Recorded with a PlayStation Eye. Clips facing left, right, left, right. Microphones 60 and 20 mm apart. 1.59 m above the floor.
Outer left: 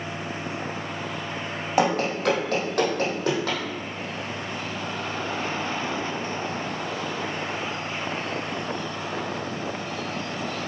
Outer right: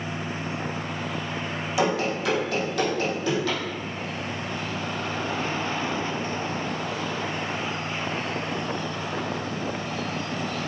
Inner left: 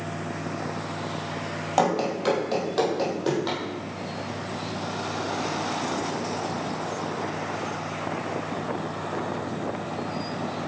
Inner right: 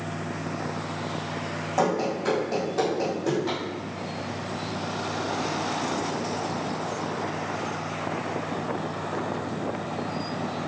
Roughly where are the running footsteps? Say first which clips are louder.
Outer left 2 dB, inner left 2 dB; left.